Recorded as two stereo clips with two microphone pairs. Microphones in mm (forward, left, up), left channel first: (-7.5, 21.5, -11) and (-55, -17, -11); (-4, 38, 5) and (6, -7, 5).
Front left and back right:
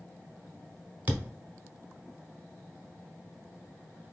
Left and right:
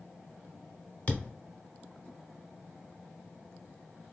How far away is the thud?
About 1.0 m.